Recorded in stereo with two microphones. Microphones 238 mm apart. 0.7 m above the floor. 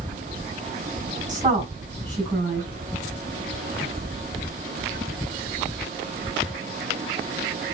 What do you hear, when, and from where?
1.3 s a woman speaking: 15° right (ahead or behind), 7 m